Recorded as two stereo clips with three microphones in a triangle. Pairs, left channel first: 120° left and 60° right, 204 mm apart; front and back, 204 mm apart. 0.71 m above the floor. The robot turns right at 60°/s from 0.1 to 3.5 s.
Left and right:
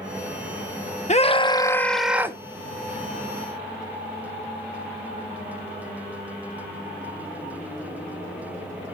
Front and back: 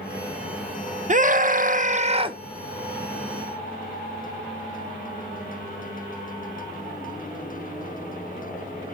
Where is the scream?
155° left, 0.9 m; by 2.4 s 125° right, 0.9 m.